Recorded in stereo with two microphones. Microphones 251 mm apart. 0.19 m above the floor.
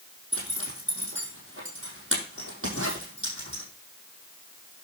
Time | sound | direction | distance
0.3 | a zipper | 55° right (ahead or behind) | 4.5 m